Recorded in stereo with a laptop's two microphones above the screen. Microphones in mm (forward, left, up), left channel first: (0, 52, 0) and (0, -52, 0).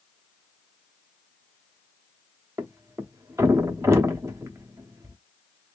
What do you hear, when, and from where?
2.6 s a thud: 25° right (ahead or behind), 0.8 m